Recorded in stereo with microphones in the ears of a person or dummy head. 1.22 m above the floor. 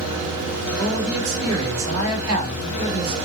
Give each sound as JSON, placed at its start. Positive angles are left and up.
{"t": 0.8, "sound": "a man speaking", "side_deg": -55, "distance_m": 4.5}